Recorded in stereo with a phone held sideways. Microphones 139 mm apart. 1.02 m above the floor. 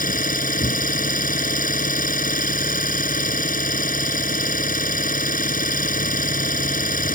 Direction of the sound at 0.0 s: 85° left.